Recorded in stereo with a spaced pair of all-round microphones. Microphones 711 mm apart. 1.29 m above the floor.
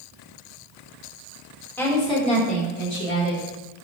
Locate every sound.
1.8 s a woman speaking: 5° left (ahead or behind), 4 m; by 3.4 s 20° left (ahead or behind), 5 m